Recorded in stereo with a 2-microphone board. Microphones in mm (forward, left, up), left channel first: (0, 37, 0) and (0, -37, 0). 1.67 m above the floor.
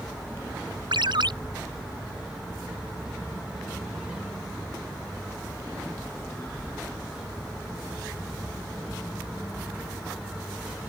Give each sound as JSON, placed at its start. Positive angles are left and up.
{"t": 0.9, "sound": "a ringtone", "side_deg": -75}